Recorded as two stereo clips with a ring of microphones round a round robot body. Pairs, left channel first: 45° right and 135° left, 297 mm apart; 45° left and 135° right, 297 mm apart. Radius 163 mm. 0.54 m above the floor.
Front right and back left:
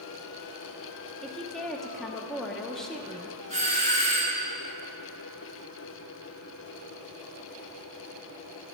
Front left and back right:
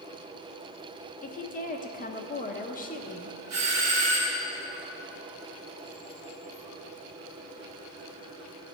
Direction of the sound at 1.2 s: 40° left.